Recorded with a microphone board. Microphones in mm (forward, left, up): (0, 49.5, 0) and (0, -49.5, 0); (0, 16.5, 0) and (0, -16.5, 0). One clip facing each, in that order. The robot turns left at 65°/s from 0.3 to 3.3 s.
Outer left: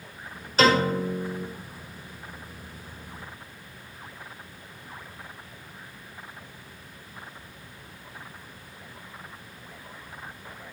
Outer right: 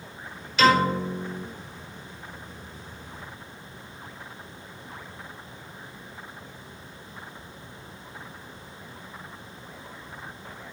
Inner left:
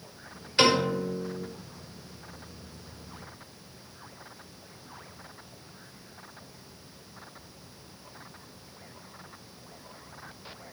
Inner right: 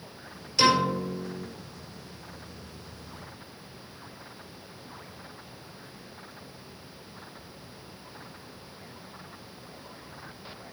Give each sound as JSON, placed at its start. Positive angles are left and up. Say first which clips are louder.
{"t": 0.6, "sound": "a piano", "louder": "outer right 1 dB, even", "azimuth_deg": 140, "distance_m": 4.5}